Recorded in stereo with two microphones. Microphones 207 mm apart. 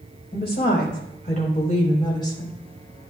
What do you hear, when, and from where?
0.3 s a woman speaking: 50° left (ahead or behind), 4 m; by 2.5 s 15° left (ahead or behind), 3 m